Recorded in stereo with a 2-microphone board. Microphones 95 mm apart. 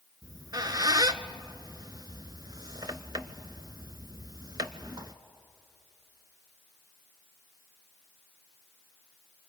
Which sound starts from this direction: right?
A squeak, at 0.2 s.